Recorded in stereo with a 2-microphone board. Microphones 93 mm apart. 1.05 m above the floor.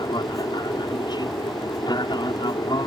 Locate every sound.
0.0 s an aircraft: 50° left (ahead or behind)